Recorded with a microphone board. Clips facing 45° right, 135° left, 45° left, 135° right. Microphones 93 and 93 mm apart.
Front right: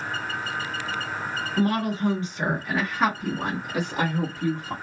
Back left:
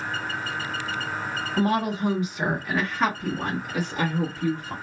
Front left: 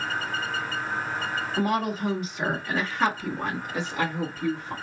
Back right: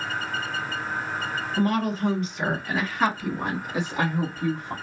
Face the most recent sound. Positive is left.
turn(degrees=-80)